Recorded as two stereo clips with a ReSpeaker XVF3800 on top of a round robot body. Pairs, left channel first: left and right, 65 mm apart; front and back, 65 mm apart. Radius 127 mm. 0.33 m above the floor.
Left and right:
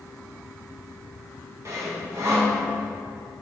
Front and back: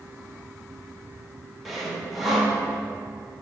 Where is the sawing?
90° right, 1.8 m.